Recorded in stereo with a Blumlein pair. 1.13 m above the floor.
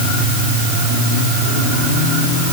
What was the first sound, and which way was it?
Only background noise.